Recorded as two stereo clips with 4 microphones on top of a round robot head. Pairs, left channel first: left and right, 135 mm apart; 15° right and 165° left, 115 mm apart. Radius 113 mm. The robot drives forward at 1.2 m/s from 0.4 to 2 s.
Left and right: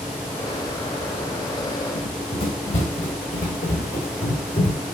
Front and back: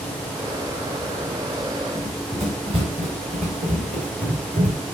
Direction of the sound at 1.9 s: 130° left.